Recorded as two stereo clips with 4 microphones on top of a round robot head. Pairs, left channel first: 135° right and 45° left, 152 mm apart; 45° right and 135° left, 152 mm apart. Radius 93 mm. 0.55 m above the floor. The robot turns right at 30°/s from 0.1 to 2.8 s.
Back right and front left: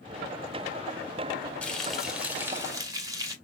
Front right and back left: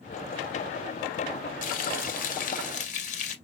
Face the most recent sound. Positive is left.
turn(degrees=-20)